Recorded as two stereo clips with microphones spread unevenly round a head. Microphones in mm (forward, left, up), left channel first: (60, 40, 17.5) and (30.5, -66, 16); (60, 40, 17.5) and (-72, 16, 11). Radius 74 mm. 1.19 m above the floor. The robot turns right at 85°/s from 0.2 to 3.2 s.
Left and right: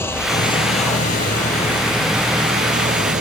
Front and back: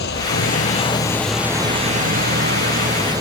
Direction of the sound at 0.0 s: 5° left.